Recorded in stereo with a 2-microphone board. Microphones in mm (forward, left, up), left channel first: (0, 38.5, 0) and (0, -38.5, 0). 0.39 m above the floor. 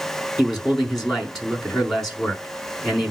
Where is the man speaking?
5° left (ahead or behind), 5 m.